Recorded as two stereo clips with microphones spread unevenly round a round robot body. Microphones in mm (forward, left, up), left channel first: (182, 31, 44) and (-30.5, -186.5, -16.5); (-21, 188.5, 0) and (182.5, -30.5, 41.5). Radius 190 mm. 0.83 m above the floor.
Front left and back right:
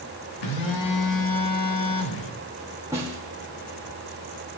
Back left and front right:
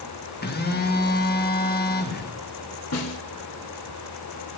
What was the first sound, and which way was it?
A phone buzzing, 80° left.